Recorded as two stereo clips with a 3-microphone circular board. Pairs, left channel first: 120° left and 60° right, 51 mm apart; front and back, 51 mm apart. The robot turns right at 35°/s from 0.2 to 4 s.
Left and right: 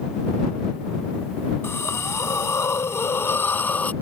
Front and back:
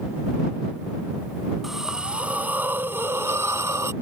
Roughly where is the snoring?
I don't hear snoring.